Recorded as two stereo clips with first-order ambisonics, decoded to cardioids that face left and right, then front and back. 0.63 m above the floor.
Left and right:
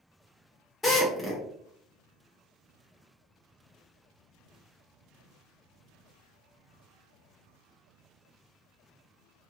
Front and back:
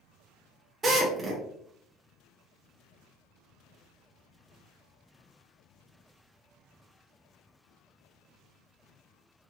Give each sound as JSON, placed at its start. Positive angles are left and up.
{"t": 0.8, "sound": "a drill", "azimuth_deg": 140, "distance_m": 0.9}